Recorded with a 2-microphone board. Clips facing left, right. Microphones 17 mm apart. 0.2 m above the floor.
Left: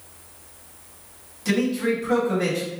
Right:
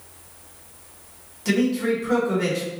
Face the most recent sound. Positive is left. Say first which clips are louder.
# right 1 dB
turn(degrees=-5)  # may be behind; listen again after turning